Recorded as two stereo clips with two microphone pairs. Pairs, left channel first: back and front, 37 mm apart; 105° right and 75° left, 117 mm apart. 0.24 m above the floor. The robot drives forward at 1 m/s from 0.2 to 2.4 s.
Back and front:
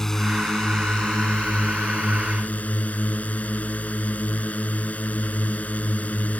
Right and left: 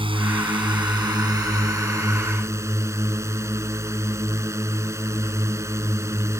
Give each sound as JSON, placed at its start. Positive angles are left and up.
{"t": 0.0, "sound": "a drone", "azimuth_deg": 100}